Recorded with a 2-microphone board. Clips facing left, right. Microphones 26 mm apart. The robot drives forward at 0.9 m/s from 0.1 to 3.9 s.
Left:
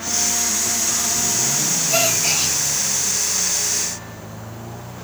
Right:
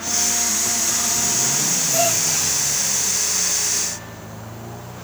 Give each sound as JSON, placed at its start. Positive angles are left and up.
{"t": 1.9, "sound": "a gasp", "side_deg": 75, "distance_m": 5.0}